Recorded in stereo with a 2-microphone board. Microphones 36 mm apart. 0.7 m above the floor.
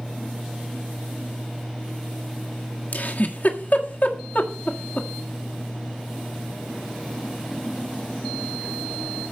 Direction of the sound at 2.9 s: 55° left (ahead or behind).